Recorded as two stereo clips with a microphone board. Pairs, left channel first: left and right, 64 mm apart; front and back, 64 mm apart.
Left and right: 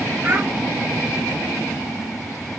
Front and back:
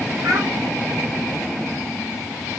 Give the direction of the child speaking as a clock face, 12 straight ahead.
5 o'clock.